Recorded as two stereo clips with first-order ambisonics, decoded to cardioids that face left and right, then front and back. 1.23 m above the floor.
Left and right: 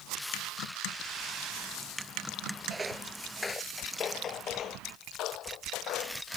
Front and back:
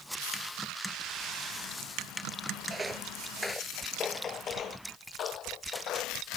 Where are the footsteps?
135° right; by 6.4 s 50° left.